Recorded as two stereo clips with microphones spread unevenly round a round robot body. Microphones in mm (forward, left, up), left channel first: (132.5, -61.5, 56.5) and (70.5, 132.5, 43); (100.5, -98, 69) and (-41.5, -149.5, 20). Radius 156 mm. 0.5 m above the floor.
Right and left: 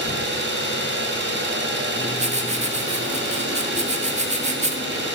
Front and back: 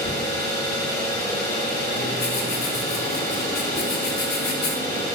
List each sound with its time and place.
0.0 s an engine running: 85° left, 2.5 m
2.0 s writing: 55° left, 1.2 m